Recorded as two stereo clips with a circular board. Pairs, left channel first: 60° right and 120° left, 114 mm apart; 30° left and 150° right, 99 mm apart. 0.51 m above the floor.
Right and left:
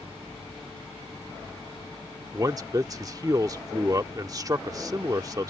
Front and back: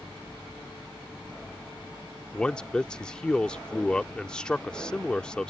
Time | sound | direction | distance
2.3 | a man speaking | 105° left | ?